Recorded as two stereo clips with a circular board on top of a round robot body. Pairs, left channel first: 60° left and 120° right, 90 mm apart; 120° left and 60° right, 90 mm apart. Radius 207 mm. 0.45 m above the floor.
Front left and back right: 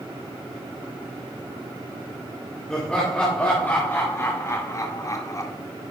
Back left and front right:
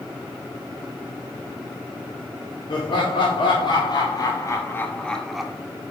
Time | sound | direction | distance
2.7 | laughter | 140° left | 2.5 m